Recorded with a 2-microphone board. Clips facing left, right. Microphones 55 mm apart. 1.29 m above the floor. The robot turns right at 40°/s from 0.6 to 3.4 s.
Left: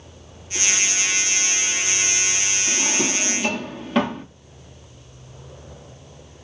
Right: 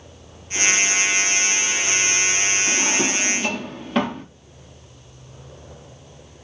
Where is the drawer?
25° right (ahead or behind), 1.1 m; by 4.2 s centre (ahead or behind), 1.1 m.